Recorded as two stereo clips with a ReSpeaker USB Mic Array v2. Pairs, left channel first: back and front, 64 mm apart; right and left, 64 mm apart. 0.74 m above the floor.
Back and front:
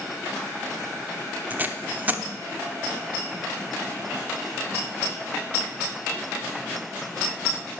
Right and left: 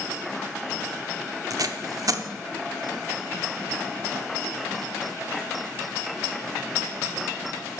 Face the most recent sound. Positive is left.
turn(degrees=65)